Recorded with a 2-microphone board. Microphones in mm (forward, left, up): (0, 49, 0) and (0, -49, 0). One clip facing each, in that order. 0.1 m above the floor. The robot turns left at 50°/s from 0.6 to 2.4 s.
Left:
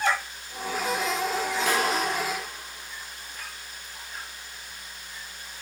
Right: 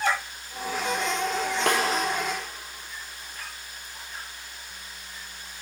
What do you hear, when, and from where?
1.7 s a snare drum: 65° right (ahead or behind), 1.7 m; by 1.8 s 60° right (ahead or behind), 1.7 m